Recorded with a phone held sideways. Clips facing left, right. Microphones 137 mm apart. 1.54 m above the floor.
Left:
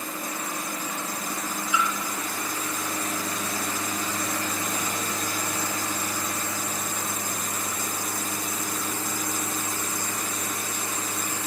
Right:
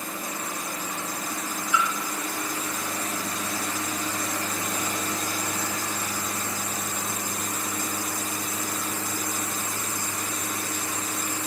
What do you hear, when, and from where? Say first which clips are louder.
1.7 s a splash: right 1 dB; 15° left (ahead or behind), 3 m